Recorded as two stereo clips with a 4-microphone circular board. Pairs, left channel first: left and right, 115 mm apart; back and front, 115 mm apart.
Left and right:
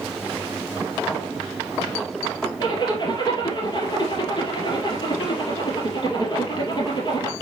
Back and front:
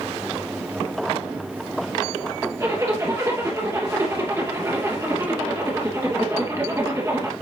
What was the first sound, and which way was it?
A zipper, 55° left.